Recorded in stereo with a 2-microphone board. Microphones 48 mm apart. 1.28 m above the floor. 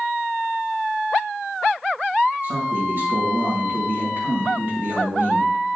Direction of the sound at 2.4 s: 40° right (ahead or behind).